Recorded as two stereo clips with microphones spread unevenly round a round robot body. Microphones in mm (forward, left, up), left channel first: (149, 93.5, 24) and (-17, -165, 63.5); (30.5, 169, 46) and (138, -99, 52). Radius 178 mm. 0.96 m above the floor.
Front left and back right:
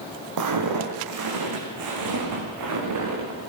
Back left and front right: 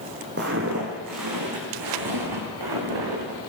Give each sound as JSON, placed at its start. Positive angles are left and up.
{"t": 0.4, "sound": "footsteps", "azimuth_deg": -125, "distance_m": 1.9}